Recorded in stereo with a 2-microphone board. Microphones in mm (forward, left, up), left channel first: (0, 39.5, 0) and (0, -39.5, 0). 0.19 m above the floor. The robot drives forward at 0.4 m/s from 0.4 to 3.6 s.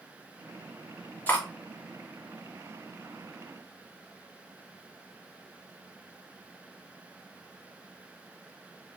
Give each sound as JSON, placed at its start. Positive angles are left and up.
{"t": 1.3, "sound": "cutlery clinking", "side_deg": 25, "distance_m": 0.8}